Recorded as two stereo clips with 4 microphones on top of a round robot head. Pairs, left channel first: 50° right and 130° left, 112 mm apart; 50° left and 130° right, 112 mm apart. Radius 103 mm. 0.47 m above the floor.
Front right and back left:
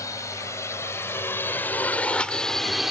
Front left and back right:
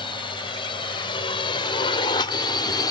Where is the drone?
10° left; by 2.9 s 50° left.